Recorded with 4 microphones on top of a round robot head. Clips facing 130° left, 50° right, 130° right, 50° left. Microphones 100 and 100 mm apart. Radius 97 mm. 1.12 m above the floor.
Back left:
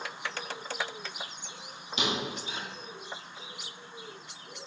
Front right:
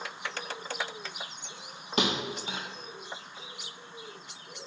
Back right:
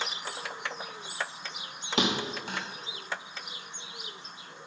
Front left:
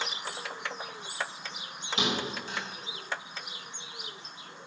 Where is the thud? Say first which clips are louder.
Front right 3 dB, back right 3 dB; 95° right, 0.6 m.